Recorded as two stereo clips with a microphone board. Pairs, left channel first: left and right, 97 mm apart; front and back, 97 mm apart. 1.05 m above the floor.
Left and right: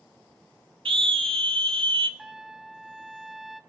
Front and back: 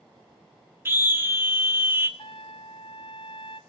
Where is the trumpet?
5° right, 0.6 m.